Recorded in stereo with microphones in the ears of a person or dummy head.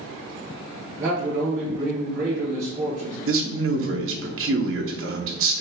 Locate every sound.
1.0 s a man speaking: 15° right (ahead or behind), 1.6 m
3.3 s a man speaking: 65° right (ahead or behind), 1.0 m